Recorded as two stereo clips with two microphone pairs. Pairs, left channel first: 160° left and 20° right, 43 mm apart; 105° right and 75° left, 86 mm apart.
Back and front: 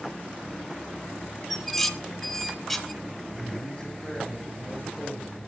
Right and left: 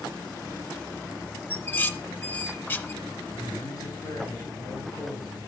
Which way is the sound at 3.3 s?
140° right.